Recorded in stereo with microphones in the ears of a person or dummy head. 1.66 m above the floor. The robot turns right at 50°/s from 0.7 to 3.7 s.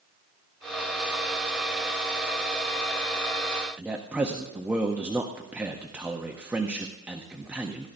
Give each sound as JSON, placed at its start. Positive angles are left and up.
{"t": 3.8, "sound": "a man speaking", "side_deg": -5, "distance_m": 0.6}